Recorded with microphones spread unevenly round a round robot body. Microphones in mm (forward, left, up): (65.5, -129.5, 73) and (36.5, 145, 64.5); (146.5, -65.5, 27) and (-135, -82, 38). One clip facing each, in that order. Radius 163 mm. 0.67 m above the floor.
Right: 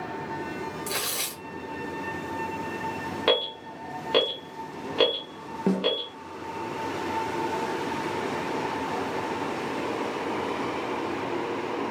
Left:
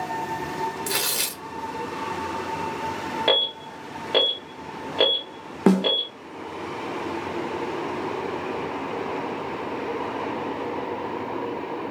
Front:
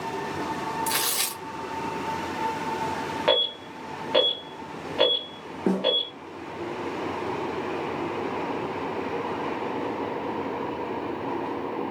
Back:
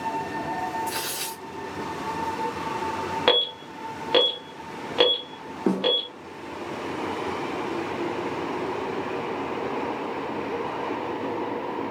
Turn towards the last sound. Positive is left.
turn(degrees=100)